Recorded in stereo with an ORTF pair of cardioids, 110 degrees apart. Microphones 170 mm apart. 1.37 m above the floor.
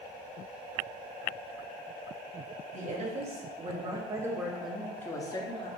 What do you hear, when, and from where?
2.7 s a woman speaking: 50° right, 1.6 m; by 5.7 s 35° left, 1.1 m